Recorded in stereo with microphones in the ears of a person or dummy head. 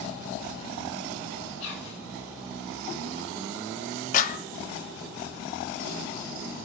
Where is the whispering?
65° left (ahead or behind), 1.8 m.